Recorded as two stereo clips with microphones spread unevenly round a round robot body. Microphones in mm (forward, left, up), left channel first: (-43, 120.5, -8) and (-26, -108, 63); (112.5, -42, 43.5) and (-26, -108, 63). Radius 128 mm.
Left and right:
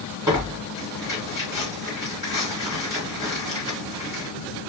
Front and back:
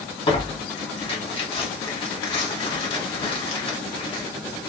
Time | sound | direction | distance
0.3 | tearing paper | straight ahead | 1.8 m